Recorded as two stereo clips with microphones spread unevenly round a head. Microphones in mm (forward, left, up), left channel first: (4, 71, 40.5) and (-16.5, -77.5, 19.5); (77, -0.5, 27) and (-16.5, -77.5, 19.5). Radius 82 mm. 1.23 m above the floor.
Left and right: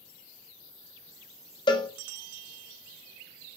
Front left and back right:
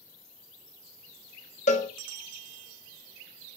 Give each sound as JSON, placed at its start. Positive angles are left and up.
{"t": 1.7, "sound": "a cowbell", "azimuth_deg": 25, "distance_m": 1.2}